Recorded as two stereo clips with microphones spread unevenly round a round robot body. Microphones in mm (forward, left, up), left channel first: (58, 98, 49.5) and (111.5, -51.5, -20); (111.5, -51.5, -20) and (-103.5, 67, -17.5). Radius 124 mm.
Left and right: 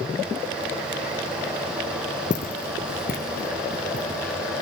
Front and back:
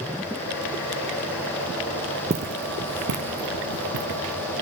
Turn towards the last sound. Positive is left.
turn(degrees=160)